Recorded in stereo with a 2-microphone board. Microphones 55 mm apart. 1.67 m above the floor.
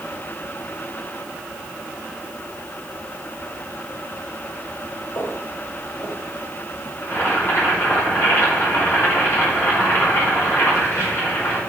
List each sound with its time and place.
5.2 s footsteps: 65° left (ahead or behind), 4 m; by 6.9 s 45° left (ahead or behind), 3 m
7.0 s boiling: 50° left (ahead or behind), 5 m